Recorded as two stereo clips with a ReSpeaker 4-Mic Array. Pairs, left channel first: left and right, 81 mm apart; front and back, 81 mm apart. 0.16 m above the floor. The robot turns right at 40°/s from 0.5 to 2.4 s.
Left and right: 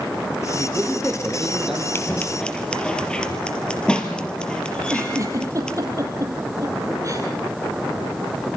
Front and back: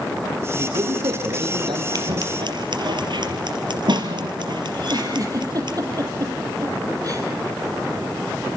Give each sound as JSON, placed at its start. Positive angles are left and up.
{"t": 0.6, "sound": "a man speaking", "azimuth_deg": 140, "distance_m": 6.5}
{"t": 1.9, "sound": "scissors", "azimuth_deg": 150, "distance_m": 3.0}
{"t": 4.8, "sound": "a giggle", "azimuth_deg": -135, "distance_m": 5.0}